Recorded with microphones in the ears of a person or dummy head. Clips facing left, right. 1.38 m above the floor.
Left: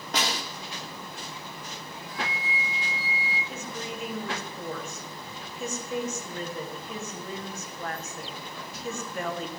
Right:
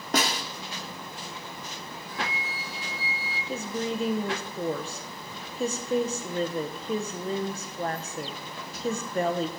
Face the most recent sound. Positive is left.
turn(degrees=-25)  # may be behind; listen again after turning